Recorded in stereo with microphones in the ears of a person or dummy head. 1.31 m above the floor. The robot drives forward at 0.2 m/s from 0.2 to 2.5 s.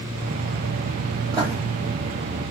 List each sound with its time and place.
1.3 s writing: 30° right (ahead or behind), 2.5 m